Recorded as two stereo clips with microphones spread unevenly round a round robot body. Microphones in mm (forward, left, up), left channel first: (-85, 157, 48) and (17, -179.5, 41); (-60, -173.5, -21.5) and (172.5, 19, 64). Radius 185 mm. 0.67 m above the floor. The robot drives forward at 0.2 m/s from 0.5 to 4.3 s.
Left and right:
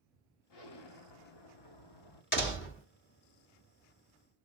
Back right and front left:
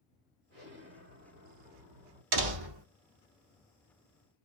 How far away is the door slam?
About 1.3 m.